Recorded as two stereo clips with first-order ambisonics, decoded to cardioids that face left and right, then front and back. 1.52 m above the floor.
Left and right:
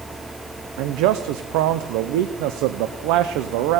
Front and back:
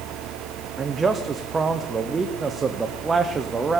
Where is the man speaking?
105° right, 0.5 m.